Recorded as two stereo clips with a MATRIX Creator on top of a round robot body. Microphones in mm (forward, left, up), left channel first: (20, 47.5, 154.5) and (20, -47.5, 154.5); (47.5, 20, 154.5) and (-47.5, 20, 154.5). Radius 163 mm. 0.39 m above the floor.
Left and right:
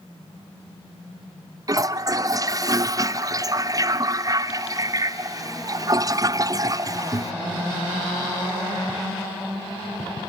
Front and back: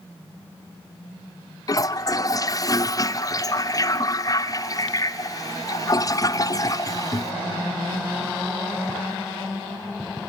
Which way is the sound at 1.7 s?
45° right.